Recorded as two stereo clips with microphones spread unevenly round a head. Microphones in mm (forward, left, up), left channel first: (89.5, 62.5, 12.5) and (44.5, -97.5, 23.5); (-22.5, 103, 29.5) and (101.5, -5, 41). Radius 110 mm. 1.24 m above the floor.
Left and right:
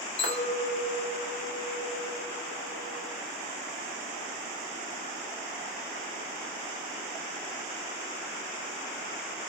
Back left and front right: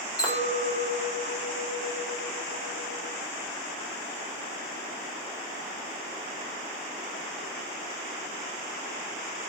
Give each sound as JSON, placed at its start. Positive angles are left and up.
{"t": 0.2, "sound": "a clink", "azimuth_deg": 75, "distance_m": 1.1}